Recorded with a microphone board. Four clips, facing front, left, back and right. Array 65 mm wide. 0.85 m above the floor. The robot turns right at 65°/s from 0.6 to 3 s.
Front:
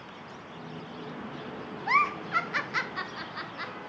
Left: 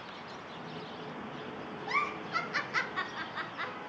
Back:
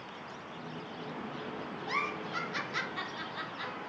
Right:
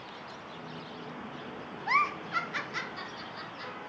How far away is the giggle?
About 0.5 m.